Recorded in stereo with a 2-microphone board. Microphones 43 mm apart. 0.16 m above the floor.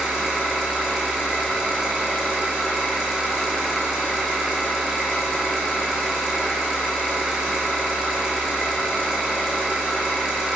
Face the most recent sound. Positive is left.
turn(degrees=-10)  # may be behind; listen again after turning